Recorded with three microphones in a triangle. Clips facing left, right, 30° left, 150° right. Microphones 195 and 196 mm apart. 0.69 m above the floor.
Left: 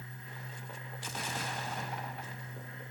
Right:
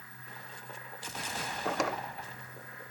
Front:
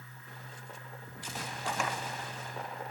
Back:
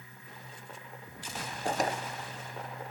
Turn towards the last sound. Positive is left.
turn(degrees=-95)